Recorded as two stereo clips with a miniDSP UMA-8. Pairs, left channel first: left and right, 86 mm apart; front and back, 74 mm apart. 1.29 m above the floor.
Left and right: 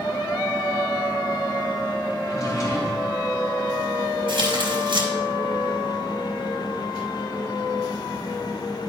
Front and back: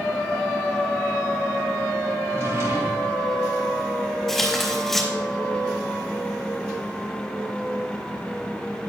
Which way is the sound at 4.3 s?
85° right.